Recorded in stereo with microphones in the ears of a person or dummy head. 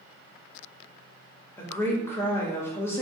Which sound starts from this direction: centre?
A woman speaking, at 1.6 s.